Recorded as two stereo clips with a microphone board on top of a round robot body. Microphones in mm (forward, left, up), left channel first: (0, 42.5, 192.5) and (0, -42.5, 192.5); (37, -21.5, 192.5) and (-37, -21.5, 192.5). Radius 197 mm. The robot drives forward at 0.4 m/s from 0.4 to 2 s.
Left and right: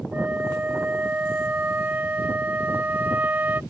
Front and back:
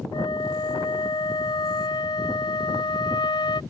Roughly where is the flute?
Ahead.